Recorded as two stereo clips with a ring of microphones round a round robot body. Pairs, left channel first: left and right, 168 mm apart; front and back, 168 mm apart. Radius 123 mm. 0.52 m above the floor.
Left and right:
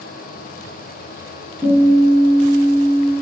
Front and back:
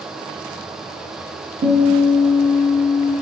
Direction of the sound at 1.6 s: Straight behind.